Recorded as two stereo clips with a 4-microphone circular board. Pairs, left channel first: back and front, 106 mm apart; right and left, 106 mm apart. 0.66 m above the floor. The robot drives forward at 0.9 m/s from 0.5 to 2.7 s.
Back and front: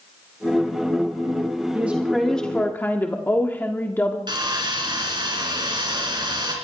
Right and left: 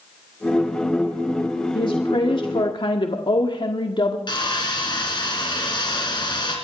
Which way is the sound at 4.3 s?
45° right.